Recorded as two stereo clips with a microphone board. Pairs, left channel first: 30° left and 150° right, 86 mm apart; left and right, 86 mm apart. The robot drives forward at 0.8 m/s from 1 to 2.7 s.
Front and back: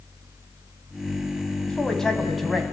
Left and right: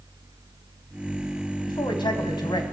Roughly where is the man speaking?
Left.